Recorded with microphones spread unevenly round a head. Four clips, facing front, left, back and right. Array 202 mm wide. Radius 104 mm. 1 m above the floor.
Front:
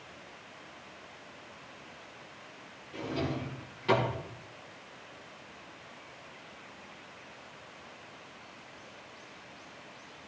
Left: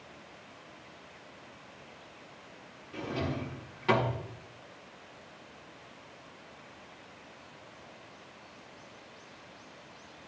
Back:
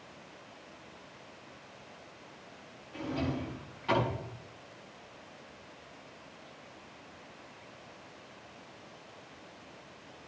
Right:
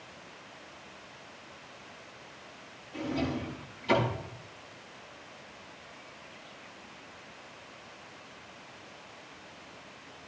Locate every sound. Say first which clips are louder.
2.9 s a drawer: right 2 dB, even; 65° left, 6.5 m